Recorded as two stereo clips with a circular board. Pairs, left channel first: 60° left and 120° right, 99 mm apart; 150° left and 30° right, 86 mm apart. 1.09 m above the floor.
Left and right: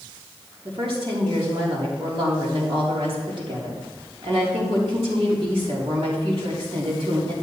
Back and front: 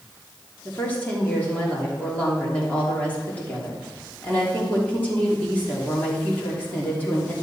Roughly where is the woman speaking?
Behind right.